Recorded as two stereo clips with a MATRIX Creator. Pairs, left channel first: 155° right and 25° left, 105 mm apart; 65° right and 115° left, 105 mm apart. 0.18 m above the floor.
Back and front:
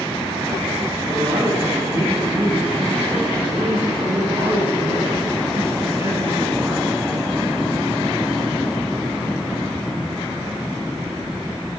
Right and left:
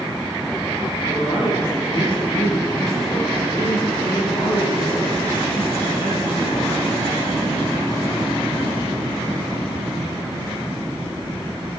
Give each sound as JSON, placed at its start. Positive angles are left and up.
{"t": 1.0, "sound": "a man speaking", "azimuth_deg": -40, "distance_m": 3.5}